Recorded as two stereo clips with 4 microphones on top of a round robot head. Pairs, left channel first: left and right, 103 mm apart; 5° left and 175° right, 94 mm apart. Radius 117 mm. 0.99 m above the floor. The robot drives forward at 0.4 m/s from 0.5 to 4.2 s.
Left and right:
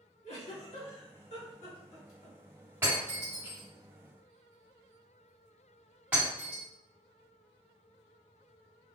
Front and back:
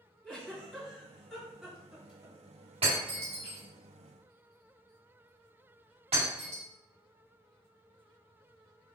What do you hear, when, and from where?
0.2 s a giggle: 85° left, 1.8 m; by 2.4 s 110° left, 1.9 m
2.8 s breaking glass: 160° right, 1.4 m; by 6.6 s 165° right, 1.9 m